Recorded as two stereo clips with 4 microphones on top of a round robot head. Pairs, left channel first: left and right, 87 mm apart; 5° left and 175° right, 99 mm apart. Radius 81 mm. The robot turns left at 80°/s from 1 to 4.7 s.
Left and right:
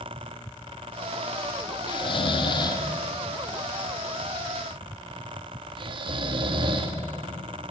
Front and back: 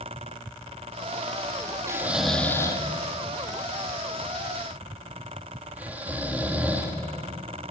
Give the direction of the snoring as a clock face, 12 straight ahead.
8 o'clock.